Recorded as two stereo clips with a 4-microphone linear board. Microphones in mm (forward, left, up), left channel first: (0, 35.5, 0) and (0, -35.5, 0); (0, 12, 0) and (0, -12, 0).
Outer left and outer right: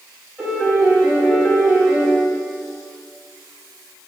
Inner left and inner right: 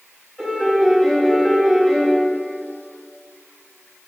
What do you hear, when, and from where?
0.4 s a piano: 10° right (ahead or behind), 1.7 m